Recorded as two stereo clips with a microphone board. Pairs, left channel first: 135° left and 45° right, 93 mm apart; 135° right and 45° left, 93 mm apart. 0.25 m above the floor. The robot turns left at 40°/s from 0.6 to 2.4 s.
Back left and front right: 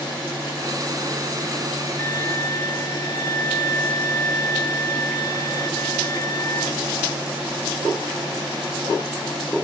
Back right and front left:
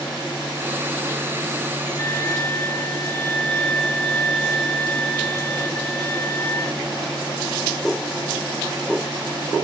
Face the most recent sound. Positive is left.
turn(degrees=160)